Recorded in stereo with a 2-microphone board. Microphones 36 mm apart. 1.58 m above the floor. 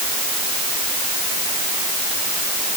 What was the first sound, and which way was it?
Only background noise.